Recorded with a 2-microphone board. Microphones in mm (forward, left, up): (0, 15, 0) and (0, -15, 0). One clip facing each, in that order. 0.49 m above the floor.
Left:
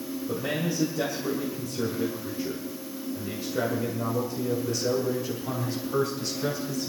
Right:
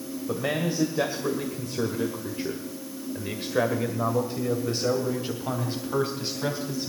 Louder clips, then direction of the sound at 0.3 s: Right 2 dB; 40° right (ahead or behind).